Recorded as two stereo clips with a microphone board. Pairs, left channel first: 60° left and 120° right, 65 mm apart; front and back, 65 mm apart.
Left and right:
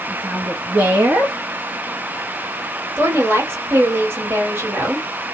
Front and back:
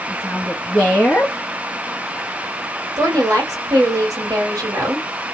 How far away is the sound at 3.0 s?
About 1.9 m.